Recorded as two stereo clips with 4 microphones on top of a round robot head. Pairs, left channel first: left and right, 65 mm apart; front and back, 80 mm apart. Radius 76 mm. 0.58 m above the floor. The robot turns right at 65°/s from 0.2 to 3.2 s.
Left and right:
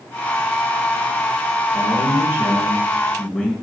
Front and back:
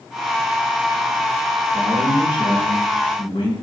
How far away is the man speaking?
About 6.5 m.